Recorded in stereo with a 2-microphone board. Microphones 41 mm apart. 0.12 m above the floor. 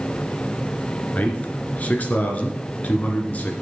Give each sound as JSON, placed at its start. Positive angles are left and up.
{"t": 1.1, "sound": "a man speaking", "side_deg": 35, "distance_m": 1.9}